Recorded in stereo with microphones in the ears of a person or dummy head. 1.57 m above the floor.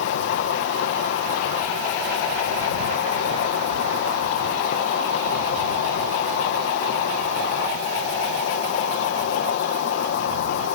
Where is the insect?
70° left (ahead or behind).